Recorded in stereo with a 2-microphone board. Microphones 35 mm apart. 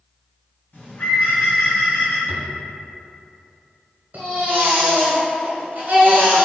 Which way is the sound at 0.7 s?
50° left (ahead or behind).